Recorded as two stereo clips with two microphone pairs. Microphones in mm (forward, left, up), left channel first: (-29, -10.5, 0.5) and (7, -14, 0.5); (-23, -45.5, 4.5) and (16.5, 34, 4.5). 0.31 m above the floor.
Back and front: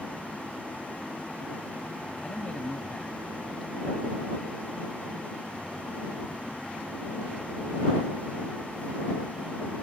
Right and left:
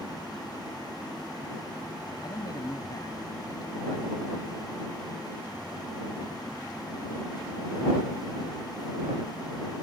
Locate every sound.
2.2 s a man speaking: 130° right